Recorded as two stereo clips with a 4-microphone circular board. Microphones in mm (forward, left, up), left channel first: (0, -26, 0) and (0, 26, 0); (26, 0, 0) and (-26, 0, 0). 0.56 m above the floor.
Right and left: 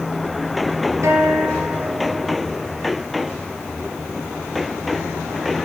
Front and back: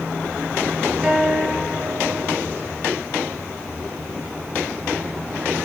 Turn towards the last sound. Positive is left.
turn(degrees=105)